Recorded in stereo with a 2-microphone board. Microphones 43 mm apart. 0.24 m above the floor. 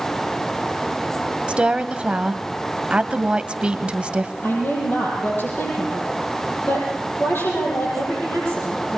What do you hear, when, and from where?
1.5 s a woman speaking: 25° right (ahead or behind), 1.0 m
4.4 s a woman speaking: 60° left (ahead or behind), 7.5 m